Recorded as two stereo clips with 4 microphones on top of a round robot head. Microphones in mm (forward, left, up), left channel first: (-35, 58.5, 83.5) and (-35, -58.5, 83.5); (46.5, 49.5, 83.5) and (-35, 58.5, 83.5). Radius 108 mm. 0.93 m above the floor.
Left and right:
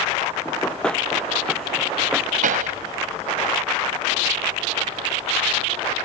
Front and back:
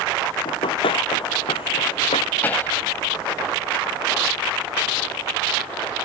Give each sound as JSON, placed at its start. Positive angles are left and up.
{"t": 0.5, "sound": "running footsteps", "azimuth_deg": 10}
{"t": 2.4, "sound": "a pop", "azimuth_deg": -80}